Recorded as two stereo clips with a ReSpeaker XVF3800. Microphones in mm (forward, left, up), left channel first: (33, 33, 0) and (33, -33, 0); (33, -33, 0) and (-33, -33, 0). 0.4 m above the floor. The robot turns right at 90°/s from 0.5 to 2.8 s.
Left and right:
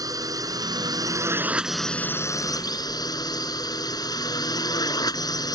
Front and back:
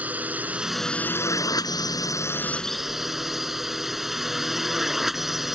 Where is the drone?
110° right; by 5.5 s 95° left.